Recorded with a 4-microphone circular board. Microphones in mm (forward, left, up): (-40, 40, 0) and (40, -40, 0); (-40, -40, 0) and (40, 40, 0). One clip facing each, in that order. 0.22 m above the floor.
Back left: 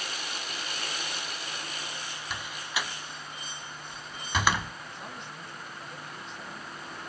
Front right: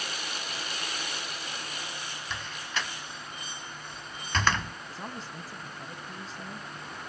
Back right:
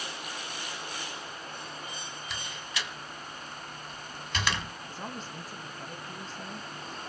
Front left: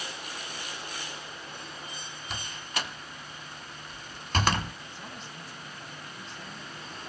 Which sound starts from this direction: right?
A man speaking, at 4.9 s.